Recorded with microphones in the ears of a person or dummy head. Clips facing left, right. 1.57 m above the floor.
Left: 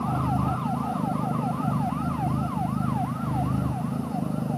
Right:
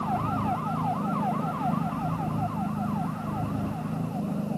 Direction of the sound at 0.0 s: 70° left (ahead or behind).